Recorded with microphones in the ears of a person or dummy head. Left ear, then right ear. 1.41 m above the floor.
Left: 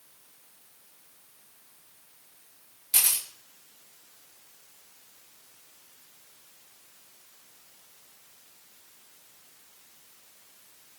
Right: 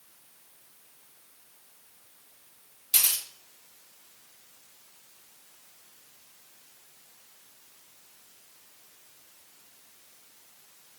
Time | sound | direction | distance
2.9 | a camera shutter | 10° right (ahead or behind) | 4 m